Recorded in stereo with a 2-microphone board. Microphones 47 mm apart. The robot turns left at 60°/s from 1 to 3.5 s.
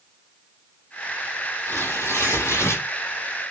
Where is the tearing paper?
135° left, 0.9 m; by 2.9 s 65° left, 0.9 m.